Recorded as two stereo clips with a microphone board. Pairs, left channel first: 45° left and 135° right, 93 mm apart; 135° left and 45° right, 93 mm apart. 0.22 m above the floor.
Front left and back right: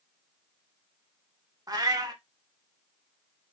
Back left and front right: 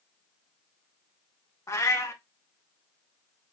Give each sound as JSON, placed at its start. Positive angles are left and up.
{"t": 1.7, "sound": "a cat meowing", "azimuth_deg": -175, "distance_m": 0.6}